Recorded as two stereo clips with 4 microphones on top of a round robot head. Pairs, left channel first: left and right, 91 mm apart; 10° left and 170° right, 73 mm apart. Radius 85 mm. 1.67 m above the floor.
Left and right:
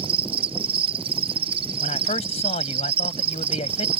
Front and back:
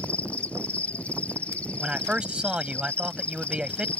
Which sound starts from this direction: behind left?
A man speaking, at 1.8 s.